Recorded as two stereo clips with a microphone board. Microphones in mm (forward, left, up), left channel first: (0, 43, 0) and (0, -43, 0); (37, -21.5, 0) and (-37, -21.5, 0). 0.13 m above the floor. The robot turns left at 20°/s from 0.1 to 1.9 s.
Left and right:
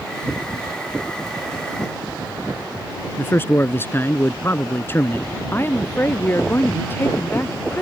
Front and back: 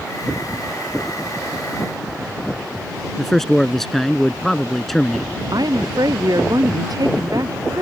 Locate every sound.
3.2 s a man speaking: 85° left
5.5 s a woman speaking: 155° left